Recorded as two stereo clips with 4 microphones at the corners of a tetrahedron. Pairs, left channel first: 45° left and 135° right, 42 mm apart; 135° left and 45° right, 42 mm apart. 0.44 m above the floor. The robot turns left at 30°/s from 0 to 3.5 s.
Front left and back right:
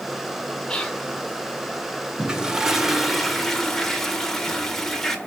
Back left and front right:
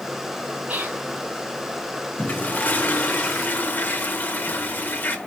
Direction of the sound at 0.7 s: 15° right.